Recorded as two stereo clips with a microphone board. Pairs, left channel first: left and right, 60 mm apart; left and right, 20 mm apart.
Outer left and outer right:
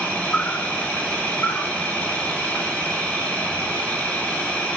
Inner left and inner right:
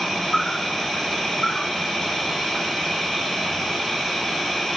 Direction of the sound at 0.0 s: 25° left (ahead or behind).